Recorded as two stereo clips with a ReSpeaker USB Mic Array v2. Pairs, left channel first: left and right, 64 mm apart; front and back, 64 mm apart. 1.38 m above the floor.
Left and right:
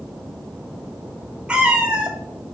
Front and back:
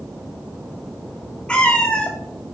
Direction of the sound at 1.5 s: 45° right.